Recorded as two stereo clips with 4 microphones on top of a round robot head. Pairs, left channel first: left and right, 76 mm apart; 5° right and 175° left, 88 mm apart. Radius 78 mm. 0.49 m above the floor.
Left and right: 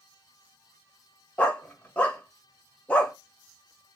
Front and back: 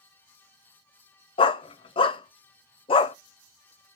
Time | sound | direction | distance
1.4 | a dog barking | 15° left | 0.5 m